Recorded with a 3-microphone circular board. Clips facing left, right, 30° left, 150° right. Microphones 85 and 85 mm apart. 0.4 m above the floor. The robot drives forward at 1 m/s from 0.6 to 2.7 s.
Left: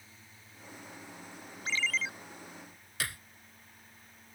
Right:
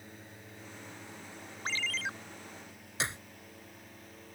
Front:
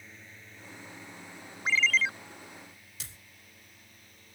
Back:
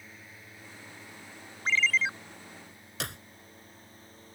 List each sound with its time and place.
0.0 s a drone: 65° right; by 4.3 s 95° right
1.6 s a ringtone: 50° right; by 2.1 s 85° right
3.0 s a clap: 155° right